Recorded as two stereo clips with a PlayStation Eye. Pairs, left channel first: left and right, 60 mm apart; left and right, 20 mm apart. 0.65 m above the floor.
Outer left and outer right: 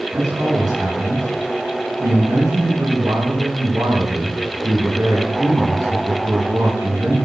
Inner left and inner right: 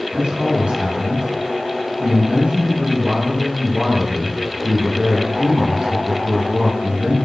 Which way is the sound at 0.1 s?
80° right.